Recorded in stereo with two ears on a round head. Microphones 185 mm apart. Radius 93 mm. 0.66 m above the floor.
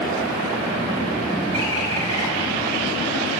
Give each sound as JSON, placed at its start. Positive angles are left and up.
{"t": 1.5, "sound": "a bird", "side_deg": -80, "distance_m": 7.0}